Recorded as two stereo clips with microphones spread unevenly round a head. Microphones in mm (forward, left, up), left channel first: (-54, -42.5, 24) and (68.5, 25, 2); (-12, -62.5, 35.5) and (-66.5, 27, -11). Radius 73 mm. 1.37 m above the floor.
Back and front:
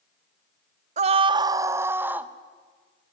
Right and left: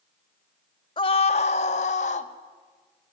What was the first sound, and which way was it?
A scream, 15° right.